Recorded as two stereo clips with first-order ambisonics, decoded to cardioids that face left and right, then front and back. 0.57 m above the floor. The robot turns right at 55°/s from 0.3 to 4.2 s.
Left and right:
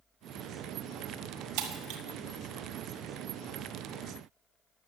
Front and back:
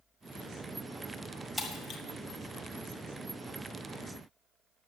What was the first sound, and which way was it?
Breaking glass, 80° right.